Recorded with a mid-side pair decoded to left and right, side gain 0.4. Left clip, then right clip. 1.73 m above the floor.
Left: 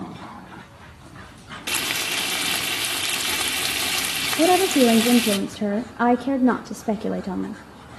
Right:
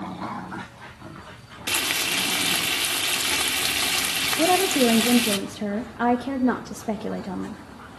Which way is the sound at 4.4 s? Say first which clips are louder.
Left 4 dB; 35° left.